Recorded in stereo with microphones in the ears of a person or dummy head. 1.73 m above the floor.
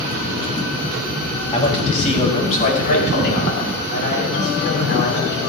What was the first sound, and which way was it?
A man speaking, 30° left (ahead or behind).